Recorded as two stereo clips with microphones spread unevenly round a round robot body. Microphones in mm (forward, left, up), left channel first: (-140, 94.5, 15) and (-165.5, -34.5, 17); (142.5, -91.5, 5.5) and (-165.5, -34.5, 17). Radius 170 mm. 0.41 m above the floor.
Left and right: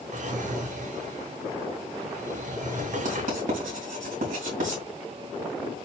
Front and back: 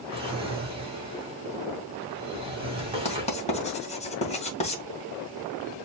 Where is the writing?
80° right, 2 m.